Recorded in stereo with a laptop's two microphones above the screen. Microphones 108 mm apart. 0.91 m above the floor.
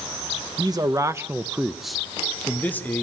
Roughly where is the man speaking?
Right.